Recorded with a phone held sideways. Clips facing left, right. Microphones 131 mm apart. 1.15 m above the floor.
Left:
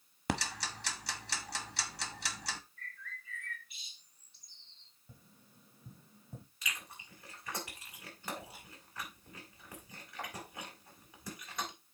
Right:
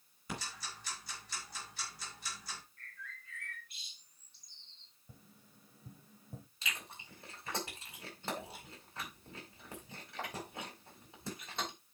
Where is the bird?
Centre (ahead or behind), 3 m.